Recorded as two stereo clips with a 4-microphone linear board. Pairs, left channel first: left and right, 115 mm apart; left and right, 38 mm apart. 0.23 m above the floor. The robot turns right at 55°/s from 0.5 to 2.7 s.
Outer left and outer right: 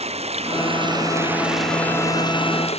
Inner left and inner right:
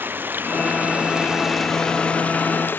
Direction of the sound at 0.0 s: 60° right.